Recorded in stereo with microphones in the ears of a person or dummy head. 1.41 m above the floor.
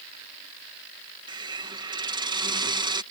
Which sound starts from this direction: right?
A hiss, at 1.3 s.